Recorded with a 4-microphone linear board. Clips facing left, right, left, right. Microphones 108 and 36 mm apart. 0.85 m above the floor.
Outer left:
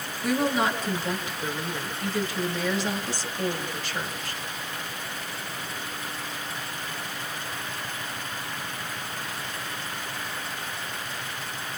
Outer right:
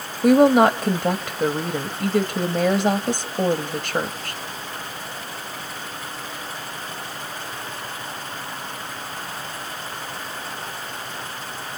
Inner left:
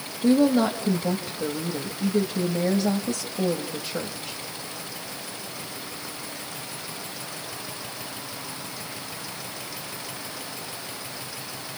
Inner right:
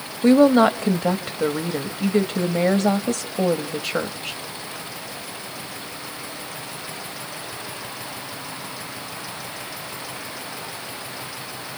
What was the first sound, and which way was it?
A woman speaking, 55° right (ahead or behind).